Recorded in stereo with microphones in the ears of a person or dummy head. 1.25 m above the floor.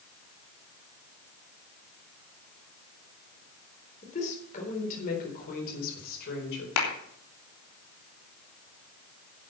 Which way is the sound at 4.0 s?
35° left (ahead or behind).